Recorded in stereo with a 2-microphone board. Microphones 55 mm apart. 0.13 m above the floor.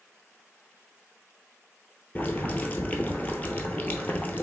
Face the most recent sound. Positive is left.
turn(degrees=30)  # may be behind; listen again after turning